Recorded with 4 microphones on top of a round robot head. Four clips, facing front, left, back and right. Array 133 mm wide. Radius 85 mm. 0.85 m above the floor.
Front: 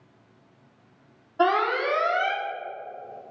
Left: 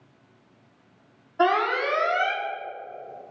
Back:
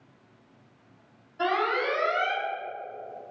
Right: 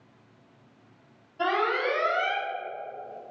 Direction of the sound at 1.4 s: 45° left.